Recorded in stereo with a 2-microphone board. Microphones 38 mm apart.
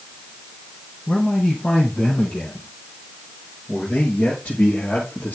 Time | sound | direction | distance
1.1 | a man speaking | 20° left (ahead or behind) | 5 m